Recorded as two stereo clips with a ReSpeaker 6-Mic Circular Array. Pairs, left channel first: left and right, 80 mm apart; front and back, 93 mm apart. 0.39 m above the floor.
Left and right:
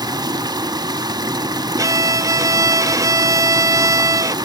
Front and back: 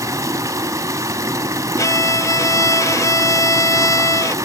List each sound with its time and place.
0.0 s running water: 125° right, 1.1 m
1.8 s a violin: 50° right, 0.6 m